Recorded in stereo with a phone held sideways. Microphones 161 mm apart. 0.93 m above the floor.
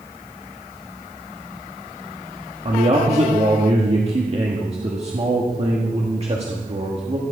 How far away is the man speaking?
About 1.6 m.